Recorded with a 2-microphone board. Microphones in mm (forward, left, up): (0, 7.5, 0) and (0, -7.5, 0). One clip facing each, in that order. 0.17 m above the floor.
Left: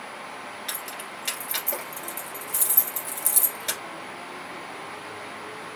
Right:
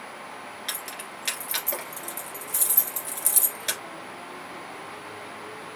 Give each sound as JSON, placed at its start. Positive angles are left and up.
{"t": 0.7, "sound": "keys jangling", "side_deg": -15, "distance_m": 1.9}